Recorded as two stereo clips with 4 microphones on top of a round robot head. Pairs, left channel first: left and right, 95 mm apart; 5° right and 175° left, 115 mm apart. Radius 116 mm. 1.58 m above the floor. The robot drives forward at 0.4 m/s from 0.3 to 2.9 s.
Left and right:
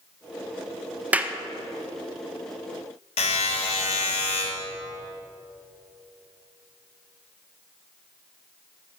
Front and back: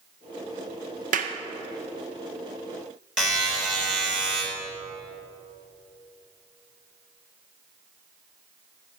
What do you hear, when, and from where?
1.1 s a clap: 165° right, 0.6 m
3.2 s a buzzer: 90° left, 3 m